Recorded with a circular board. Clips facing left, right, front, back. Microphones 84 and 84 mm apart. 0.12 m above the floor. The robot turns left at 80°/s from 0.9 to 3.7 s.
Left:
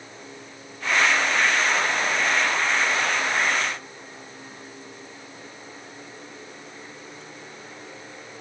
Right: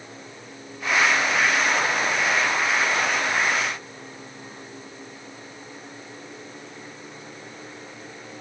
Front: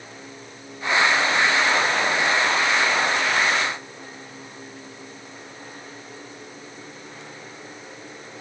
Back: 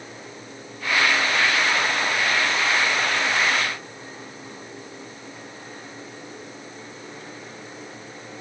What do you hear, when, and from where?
Only background noise.